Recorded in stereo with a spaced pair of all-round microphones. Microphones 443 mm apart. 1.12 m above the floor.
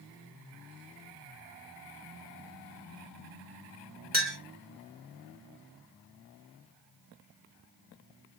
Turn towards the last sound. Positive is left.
turn(degrees=-20)  # may be behind; listen again after turning